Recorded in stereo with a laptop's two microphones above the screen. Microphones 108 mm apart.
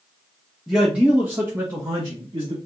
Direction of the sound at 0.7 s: Centre (ahead or behind).